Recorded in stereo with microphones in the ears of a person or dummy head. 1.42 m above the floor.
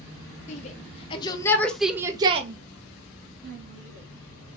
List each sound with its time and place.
0.5 s a shout: 35° left (ahead or behind), 1.0 m; by 4.6 s 75° right (ahead or behind), 1.5 m